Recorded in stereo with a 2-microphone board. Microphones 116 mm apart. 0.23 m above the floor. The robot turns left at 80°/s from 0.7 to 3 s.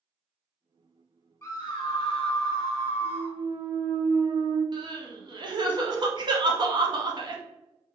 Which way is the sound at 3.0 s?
60° right (ahead or behind).